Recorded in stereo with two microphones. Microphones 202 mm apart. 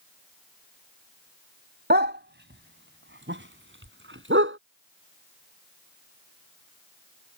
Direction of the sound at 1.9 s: 55° right (ahead or behind).